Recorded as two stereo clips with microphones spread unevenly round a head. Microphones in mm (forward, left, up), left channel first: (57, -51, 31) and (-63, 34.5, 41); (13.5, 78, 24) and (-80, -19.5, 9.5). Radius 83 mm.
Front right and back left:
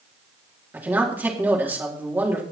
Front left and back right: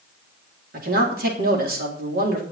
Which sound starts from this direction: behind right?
A man speaking, at 0.7 s.